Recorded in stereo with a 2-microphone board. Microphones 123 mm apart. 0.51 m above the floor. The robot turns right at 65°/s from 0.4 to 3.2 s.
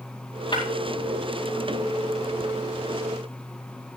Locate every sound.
0.5 s breaking glass: 40° left (ahead or behind), 9 m; by 0.6 s 35° left (ahead or behind), 9 m